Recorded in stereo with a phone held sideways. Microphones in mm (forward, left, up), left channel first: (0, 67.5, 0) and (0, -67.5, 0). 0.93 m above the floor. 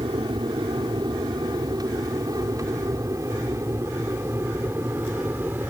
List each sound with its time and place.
0.0 s an aircraft: 35° right (ahead or behind); by 5.7 s 15° right (ahead or behind)